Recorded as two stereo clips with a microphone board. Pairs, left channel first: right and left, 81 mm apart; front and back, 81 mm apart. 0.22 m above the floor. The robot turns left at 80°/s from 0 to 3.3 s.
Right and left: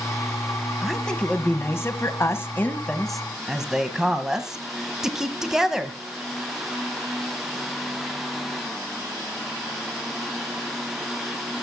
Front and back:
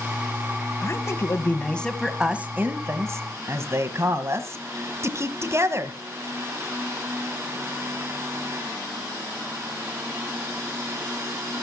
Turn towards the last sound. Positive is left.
turn(degrees=170)